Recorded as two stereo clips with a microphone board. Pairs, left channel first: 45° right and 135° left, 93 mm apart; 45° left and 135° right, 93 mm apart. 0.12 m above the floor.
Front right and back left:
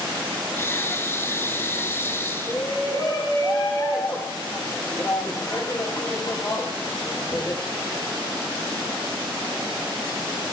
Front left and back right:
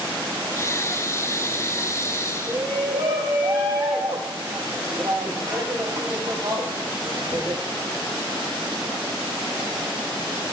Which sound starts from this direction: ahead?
Breathing, at 0.6 s.